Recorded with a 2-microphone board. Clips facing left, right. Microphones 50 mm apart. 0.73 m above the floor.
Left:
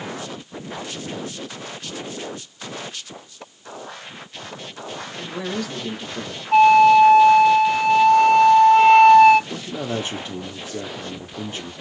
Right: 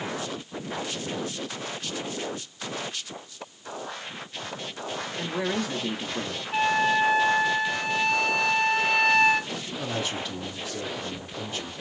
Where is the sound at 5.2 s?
15° right (ahead or behind), 1.1 m.